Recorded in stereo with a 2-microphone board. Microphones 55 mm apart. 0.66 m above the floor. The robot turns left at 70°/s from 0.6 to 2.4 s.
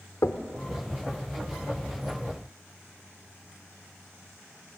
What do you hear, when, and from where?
0.2 s knocking: 70° left (ahead or behind), 1.1 m